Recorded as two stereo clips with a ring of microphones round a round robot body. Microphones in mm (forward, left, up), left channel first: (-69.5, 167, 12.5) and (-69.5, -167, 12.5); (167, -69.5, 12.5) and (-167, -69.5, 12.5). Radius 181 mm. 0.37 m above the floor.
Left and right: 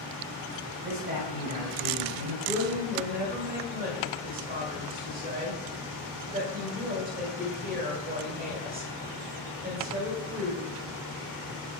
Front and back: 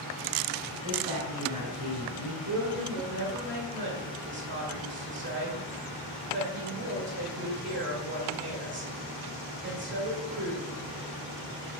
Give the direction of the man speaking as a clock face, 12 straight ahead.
5 o'clock.